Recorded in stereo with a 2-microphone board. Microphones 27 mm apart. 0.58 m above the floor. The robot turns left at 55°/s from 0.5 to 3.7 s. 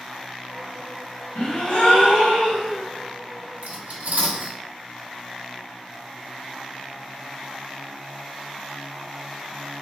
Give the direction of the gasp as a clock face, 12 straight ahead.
8 o'clock.